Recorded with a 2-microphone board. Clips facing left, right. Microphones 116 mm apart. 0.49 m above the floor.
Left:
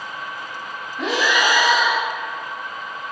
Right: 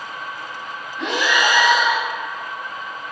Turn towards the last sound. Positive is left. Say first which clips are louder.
# even
turn(degrees=5)  # may be behind; listen again after turning